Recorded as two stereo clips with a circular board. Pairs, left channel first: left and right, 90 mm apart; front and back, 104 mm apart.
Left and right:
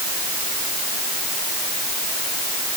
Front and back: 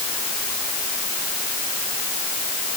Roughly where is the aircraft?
No aircraft in this recording.